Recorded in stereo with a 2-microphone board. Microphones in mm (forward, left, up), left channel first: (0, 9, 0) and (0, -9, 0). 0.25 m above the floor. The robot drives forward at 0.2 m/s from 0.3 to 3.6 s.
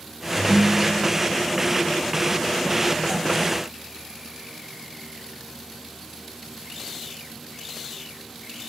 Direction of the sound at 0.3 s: 20° left (ahead or behind).